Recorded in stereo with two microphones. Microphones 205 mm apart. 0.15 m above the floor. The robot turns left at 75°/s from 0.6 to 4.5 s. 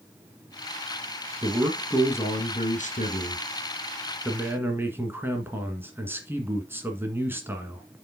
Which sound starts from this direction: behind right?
A man speaking, at 1.4 s.